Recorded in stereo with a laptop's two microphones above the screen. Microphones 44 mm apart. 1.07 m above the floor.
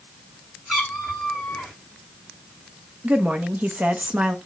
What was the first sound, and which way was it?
A cat meowing, 5° left (ahead or behind).